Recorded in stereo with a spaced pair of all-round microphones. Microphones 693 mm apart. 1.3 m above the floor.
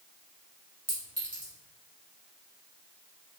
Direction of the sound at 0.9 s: 20° right (ahead or behind).